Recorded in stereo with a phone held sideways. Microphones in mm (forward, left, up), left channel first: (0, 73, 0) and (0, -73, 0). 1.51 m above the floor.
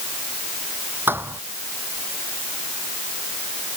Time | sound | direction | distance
1.1 | a thud | 15° right (ahead or behind) | ?